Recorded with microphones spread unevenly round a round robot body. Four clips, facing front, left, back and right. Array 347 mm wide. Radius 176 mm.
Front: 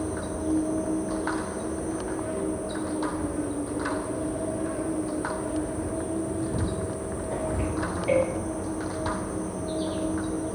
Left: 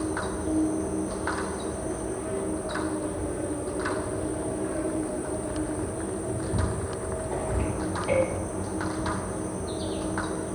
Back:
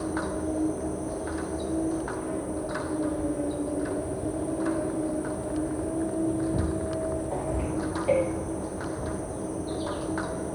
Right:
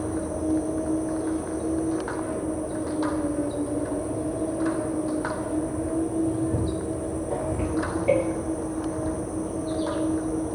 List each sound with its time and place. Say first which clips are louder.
0.0 s an insect: right 2 dB, even; 70° right, 8 m